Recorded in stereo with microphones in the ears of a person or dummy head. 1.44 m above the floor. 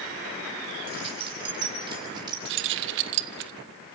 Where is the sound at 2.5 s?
60° right (ahead or behind), 1.2 m.